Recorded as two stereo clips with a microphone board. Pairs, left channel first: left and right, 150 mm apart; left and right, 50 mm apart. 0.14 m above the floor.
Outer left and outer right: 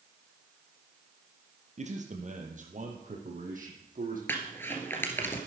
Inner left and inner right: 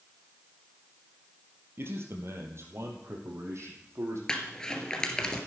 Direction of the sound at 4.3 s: 15° left (ahead or behind).